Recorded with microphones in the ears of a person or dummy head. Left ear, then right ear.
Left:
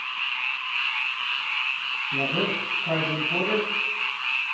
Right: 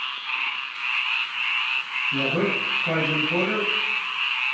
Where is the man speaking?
Centre (ahead or behind), 1.2 m.